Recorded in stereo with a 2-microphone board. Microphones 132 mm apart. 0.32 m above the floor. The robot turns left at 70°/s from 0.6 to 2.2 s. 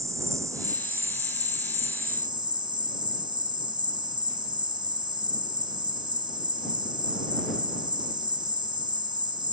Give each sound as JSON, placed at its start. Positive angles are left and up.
{"t": 0.0, "sound": "an insect", "azimuth_deg": -25}